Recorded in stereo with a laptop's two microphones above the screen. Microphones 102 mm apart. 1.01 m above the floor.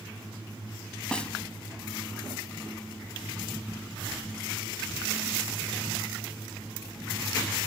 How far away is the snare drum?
About 1.1 m.